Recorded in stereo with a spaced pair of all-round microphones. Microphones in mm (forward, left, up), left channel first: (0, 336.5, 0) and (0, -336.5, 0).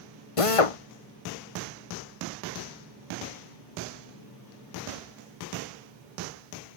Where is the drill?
50° left (ahead or behind).